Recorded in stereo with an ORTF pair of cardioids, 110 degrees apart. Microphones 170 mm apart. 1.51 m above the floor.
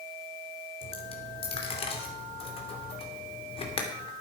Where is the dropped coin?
35° left, 2.5 m.